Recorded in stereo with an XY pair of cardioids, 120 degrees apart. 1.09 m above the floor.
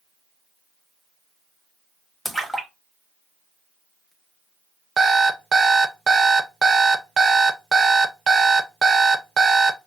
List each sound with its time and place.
2.2 s a splash: 10° left, 1.4 m
5.0 s an alarm clock: 30° right, 0.6 m